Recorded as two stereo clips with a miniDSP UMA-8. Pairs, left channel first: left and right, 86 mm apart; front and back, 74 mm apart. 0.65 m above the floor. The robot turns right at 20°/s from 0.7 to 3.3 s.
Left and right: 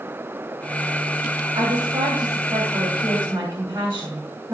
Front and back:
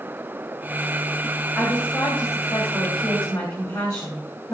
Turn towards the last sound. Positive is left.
turn(degrees=-35)